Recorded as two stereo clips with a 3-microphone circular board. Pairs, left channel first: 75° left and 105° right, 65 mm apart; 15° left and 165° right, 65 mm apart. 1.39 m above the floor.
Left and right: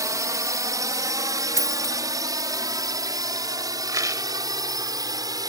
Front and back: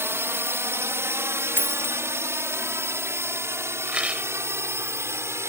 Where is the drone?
120° right.